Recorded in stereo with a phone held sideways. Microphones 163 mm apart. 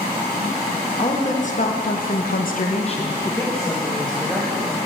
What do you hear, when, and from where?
1.0 s a woman speaking: 40° left (ahead or behind), 2 m; by 4.8 s centre (ahead or behind), 3 m